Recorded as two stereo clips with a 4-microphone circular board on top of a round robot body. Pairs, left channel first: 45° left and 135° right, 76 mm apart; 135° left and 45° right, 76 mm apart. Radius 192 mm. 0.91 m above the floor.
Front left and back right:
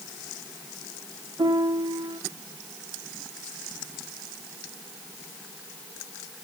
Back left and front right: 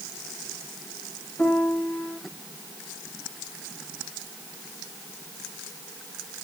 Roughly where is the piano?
Behind right.